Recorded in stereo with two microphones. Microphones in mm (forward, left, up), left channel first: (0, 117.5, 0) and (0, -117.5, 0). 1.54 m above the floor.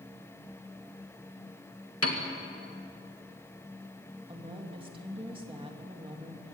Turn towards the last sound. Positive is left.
turn(degrees=-20)  # may be behind; listen again after turning